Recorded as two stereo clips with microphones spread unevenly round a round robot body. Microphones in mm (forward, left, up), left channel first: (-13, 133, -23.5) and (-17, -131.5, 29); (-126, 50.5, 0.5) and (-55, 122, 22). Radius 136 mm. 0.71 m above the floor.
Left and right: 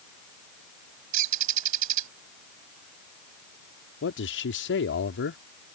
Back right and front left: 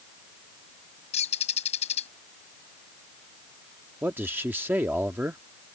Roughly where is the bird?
Behind right.